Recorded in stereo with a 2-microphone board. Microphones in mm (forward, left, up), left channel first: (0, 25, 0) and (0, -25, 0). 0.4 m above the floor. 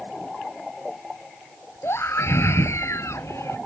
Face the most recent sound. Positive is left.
turn(degrees=70)  # may be behind; listen again after turning